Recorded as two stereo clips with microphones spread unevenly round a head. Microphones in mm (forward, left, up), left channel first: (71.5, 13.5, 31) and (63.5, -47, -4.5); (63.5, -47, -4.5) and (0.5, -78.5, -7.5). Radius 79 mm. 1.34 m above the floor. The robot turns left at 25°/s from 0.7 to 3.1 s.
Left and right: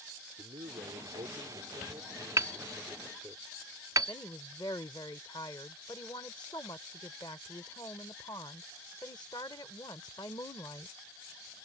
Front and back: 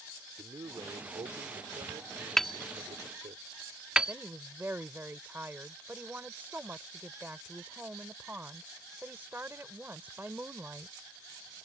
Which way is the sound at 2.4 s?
55° right.